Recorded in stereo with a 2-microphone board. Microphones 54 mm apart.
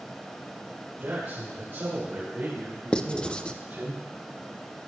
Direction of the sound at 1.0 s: 45° right (ahead or behind).